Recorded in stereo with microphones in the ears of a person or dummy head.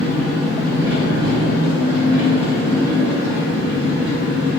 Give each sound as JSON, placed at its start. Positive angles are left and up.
{"t": 0.0, "sound": "an engine running", "side_deg": -50, "distance_m": 0.9}